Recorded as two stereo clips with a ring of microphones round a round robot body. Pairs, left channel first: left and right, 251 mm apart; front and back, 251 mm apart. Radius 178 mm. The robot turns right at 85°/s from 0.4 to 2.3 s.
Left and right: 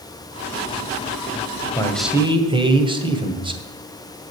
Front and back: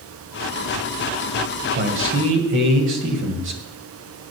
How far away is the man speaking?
About 2 m.